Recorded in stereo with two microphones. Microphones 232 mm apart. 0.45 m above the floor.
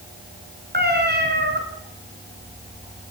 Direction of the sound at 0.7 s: 45° right (ahead or behind).